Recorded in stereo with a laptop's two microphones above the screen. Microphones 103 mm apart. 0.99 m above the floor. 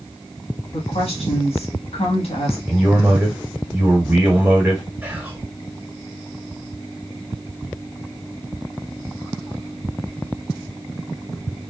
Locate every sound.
0.7 s a woman speaking: 75° left (ahead or behind), 1.5 m
2.7 s a man speaking: 25° right (ahead or behind), 1.4 m
5.0 s whispering: 20° right (ahead or behind), 1.6 m